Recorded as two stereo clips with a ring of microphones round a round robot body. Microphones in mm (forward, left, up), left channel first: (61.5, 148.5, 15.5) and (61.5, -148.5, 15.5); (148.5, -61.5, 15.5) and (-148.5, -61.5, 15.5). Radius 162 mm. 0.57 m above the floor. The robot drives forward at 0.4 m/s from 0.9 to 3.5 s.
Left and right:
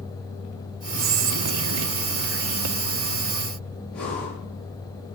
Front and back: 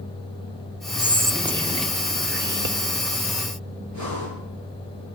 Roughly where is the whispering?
Right.